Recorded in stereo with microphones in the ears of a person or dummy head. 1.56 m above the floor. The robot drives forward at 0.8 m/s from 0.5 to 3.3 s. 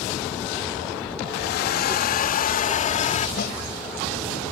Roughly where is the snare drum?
Left.